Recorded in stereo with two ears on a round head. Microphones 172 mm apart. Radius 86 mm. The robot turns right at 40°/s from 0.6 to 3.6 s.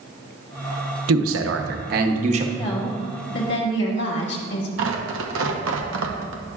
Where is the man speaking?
85° right, 0.9 m; by 2.5 s 30° right, 0.9 m.